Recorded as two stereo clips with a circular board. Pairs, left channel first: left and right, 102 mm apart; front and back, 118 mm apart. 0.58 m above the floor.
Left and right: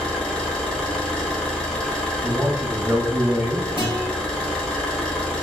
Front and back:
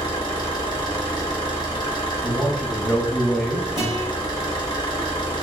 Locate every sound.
0.0 s an engine running: 10° left, 1.0 m
2.2 s a man speaking: 65° right, 0.6 m
3.8 s a guitar: 125° right, 1.5 m